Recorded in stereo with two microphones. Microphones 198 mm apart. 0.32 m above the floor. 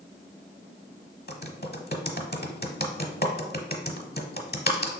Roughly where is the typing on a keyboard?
Left.